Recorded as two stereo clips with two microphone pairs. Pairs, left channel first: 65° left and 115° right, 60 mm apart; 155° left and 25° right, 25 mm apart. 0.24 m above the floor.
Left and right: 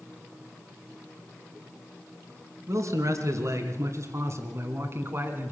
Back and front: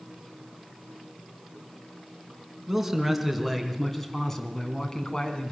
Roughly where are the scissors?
I don't hear scissors.